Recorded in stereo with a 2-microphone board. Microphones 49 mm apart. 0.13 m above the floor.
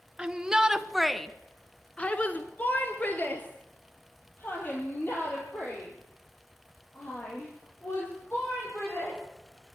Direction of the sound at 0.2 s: 20° right (ahead or behind).